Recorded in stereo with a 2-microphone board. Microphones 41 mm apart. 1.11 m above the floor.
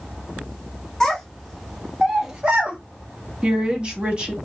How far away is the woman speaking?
About 1.1 m.